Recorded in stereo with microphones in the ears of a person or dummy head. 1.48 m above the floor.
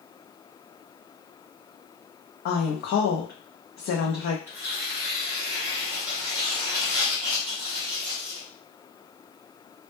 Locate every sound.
2.5 s a woman speaking: 55° left (ahead or behind), 0.5 m
4.5 s tearing paper: 10° right (ahead or behind), 0.7 m